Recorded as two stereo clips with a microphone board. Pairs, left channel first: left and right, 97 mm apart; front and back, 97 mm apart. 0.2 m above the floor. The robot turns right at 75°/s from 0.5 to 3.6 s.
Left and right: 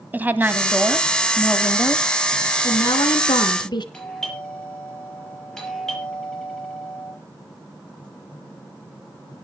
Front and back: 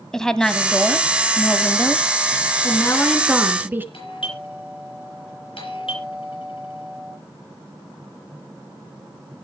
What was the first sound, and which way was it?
A woman speaking, 70° right.